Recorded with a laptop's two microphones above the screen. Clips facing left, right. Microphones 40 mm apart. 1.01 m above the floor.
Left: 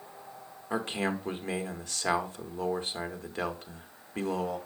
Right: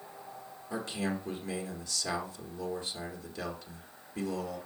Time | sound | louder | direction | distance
0.7 | a man speaking | left 4 dB | 45° left (ahead or behind) | 1.7 m